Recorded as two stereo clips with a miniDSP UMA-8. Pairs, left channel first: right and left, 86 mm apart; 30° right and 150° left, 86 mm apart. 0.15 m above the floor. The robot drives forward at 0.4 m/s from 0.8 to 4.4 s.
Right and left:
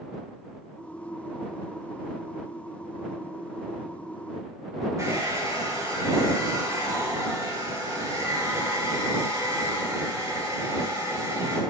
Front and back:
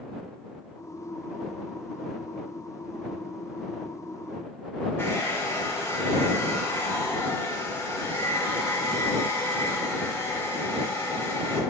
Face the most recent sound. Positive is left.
turn(degrees=35)